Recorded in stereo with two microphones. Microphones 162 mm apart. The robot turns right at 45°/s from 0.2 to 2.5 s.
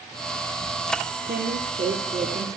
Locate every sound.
1.3 s a woman speaking: 100° right, 3 m; by 2.6 s 45° right, 3 m